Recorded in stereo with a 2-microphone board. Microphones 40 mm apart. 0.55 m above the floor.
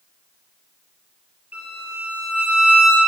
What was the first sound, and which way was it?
A violin, 35° right (ahead or behind).